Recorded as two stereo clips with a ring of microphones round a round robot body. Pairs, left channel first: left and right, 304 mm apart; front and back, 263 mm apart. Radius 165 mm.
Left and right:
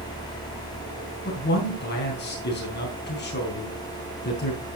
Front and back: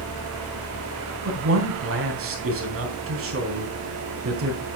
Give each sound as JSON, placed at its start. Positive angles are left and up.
{"t": 1.2, "sound": "a man speaking", "azimuth_deg": 145, "distance_m": 3.5}